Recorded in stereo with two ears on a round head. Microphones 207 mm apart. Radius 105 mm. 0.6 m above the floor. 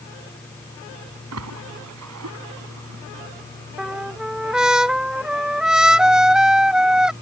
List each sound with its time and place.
1.3 s a splash: 80° right
3.8 s a trumpet: 5° right (ahead or behind)